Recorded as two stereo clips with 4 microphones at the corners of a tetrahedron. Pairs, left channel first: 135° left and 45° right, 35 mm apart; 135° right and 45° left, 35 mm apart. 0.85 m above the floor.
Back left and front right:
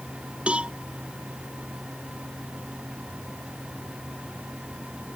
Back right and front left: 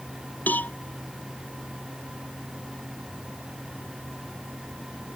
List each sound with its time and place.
0.5 s a cowbell: 100° right